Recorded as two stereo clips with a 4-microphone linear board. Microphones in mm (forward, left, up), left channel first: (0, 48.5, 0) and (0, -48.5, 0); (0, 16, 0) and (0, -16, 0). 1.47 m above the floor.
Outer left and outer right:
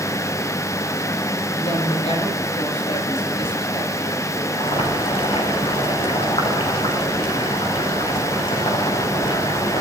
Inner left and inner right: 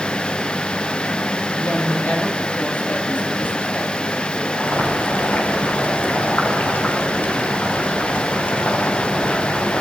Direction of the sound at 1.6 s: 85° left.